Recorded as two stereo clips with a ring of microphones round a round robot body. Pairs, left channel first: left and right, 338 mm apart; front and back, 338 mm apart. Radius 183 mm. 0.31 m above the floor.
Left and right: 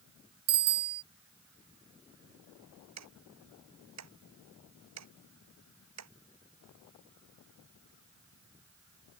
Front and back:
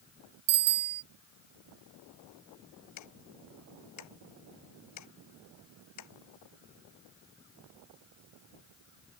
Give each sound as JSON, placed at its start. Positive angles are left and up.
{"t": 0.5, "sound": "a bicycle bell", "azimuth_deg": -145}
{"t": 3.0, "sound": "ticking", "azimuth_deg": -50}